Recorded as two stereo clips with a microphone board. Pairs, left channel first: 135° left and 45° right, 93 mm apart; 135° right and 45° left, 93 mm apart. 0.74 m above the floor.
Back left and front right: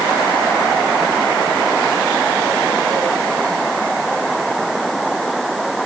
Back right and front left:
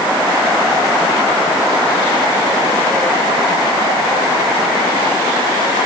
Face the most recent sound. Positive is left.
No sound to turn to.